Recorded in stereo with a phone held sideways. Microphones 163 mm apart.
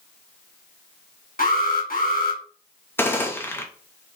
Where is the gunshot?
15° left (ahead or behind), 0.6 m.